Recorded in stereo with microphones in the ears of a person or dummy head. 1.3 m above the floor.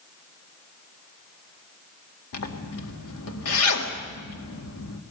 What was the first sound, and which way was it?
A zipper, 80° left.